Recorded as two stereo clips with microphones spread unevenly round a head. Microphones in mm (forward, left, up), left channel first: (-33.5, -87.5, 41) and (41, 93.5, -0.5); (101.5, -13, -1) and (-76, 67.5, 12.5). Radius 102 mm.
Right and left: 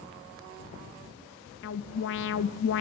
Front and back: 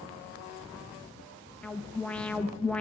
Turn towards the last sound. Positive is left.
turn(degrees=-105)